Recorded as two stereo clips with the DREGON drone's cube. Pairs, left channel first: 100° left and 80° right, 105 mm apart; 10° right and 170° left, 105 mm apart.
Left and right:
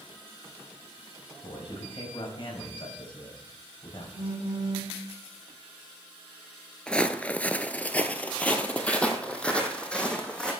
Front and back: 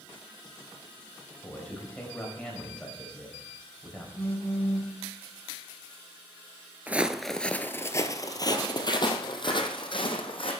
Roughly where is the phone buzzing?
Right.